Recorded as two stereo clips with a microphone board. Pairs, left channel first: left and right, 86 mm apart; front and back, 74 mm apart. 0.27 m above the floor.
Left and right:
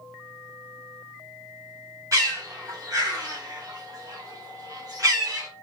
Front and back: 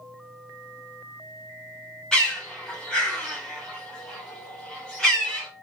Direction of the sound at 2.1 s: 80° right.